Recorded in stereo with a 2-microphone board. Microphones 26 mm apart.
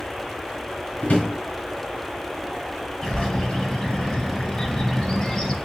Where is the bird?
30° left (ahead or behind), 0.9 m.